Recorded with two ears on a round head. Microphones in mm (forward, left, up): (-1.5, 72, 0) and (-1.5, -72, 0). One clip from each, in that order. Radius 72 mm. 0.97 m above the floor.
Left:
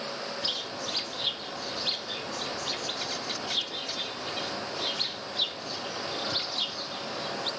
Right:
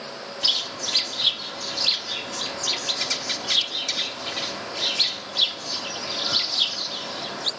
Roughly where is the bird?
Right.